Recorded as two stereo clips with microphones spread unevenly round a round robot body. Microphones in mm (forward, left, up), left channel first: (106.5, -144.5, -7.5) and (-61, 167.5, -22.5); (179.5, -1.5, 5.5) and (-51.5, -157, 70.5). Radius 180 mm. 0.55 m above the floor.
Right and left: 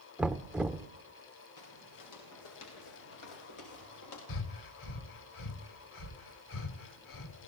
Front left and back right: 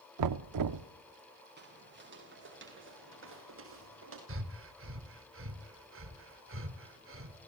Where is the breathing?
100° right, 1.8 m.